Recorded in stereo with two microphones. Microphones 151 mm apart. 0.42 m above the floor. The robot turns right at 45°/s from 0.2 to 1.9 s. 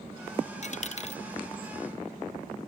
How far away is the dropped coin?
About 0.6 m.